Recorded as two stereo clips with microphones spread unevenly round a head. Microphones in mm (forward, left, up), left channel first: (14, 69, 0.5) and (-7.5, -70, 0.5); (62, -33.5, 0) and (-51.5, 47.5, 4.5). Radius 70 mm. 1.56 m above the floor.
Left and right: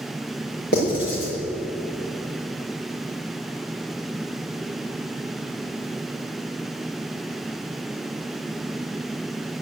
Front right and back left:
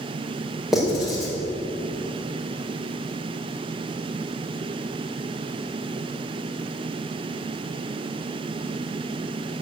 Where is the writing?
55° left, 5 m.